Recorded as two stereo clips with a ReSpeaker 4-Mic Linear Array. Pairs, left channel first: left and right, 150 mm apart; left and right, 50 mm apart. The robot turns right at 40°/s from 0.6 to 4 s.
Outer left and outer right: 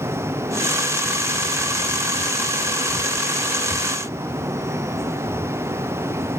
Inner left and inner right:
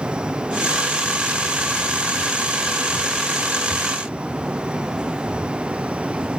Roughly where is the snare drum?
No snare drum in this recording.